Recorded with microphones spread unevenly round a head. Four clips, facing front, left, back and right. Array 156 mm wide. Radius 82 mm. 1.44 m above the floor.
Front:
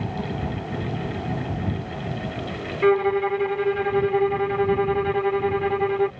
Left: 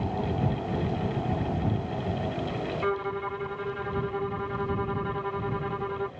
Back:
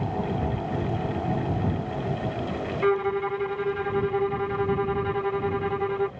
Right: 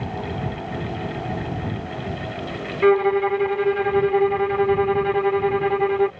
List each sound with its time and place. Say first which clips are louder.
2.8 s a violin: right 16 dB, front 5 dB; 75° right